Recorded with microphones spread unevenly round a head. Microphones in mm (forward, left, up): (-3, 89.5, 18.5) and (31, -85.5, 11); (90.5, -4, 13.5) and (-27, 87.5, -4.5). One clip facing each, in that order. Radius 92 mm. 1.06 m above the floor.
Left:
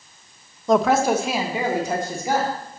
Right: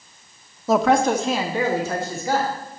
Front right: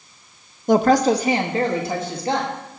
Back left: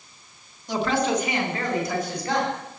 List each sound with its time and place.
0.7 s a woman speaking: 5° left, 0.7 m; by 2.5 s 30° left, 2.5 m